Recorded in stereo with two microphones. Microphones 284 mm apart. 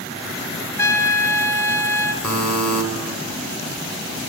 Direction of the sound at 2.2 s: 30° right (ahead or behind).